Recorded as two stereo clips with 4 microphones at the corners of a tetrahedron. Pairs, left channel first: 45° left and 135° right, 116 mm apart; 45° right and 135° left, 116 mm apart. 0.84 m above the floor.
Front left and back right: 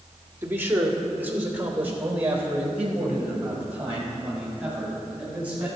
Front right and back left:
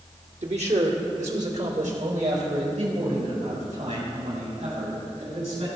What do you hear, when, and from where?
0.4 s a man speaking: 150° left, 1.5 m; by 5.7 s 145° left, 6 m